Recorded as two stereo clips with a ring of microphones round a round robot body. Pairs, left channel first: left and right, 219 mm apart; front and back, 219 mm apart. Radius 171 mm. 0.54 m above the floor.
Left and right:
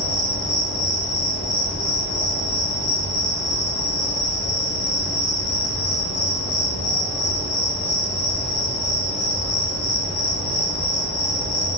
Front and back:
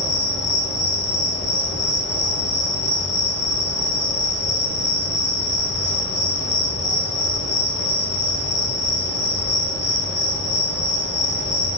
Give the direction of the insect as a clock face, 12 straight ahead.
11 o'clock.